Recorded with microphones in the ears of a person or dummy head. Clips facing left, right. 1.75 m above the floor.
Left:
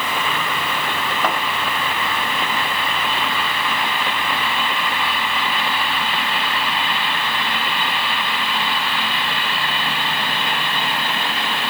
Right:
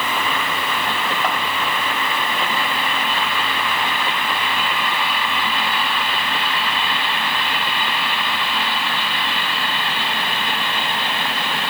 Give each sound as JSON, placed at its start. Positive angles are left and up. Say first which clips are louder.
{"t": 1.2, "sound": "a thud", "louder": "left 3 dB", "side_deg": 75, "distance_m": 5.0}